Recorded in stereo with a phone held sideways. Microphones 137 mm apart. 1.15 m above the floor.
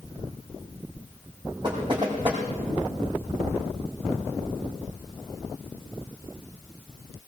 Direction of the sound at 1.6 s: 35° right (ahead or behind).